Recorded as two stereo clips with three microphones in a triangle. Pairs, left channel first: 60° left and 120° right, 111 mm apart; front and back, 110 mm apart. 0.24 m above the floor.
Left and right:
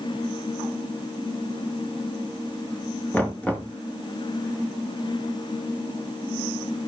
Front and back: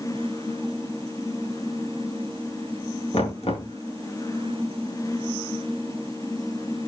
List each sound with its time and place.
3.1 s knocking: 15° right, 2 m